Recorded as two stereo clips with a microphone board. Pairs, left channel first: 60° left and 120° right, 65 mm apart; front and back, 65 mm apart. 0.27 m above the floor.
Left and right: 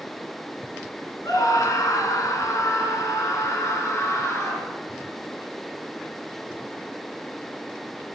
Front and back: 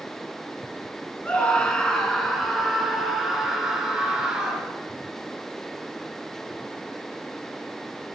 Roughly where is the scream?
Left.